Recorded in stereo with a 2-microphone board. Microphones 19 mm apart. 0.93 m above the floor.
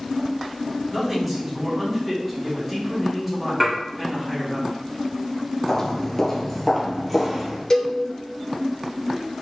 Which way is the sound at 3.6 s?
20° right (ahead or behind).